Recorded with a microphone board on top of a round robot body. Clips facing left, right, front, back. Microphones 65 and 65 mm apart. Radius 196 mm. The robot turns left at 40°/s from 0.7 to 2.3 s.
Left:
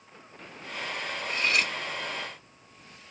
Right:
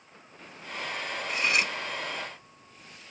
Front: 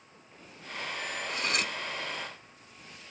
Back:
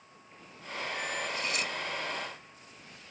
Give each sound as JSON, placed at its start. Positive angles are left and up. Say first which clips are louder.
{"t": 1.3, "sound": "cutlery clinking", "louder": "even, front 2 dB", "azimuth_deg": -10, "distance_m": 0.8}